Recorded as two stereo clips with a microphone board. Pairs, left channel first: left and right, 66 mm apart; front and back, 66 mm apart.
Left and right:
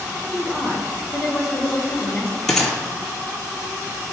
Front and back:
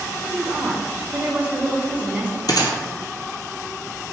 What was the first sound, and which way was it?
A woman speaking, 160° right.